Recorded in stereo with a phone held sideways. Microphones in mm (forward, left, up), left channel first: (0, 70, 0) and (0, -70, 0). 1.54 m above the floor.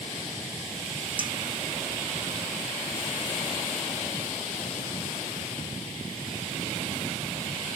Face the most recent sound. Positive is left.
turn(degrees=-35)  # may be behind; listen again after turning